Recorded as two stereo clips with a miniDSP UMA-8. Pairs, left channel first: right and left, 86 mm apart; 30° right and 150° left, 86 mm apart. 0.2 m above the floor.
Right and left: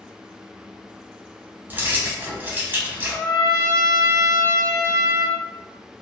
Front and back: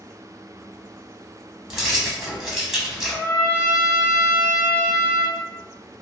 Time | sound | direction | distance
1.7 | keys jangling | 75° left | 0.9 m
3.1 | a trumpet | 90° right | 0.9 m